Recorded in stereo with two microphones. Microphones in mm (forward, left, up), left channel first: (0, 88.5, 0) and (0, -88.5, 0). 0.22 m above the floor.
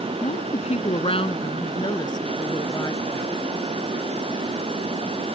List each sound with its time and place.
0.2 s a woman speaking: 40° left (ahead or behind); by 3.3 s 20° left (ahead or behind)